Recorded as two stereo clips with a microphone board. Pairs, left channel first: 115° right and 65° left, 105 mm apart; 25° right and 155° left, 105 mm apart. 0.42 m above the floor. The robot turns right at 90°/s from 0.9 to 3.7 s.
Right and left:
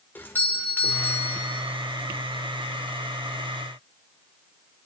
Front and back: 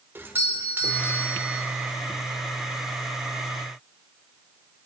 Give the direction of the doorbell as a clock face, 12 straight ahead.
5 o'clock.